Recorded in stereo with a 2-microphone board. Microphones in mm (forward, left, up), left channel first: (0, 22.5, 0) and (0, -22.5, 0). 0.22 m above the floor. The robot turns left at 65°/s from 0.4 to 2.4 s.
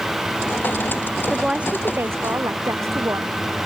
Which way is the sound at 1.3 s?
5° right.